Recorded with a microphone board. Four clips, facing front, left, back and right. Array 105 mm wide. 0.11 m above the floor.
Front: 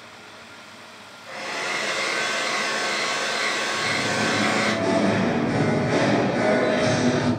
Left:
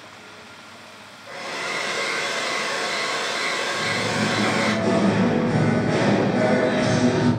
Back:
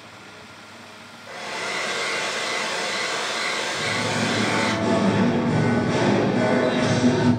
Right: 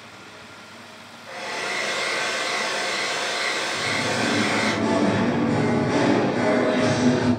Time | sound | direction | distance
1.3 | a hair dryer | 30° right | 1.7 m
3.7 | singing | 10° left | 1.4 m